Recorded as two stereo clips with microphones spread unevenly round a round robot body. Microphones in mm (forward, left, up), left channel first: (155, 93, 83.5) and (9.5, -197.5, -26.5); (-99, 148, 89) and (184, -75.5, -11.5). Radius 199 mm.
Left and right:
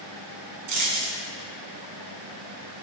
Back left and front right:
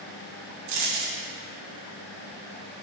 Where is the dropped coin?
85° right, 1.6 m.